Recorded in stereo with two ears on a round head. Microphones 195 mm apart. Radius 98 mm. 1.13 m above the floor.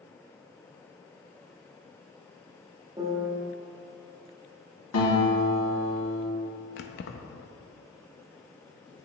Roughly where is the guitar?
Left.